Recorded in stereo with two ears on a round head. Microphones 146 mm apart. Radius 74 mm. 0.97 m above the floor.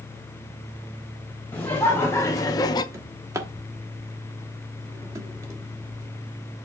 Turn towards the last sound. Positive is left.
turn(degrees=-20)  # may be behind; listen again after turning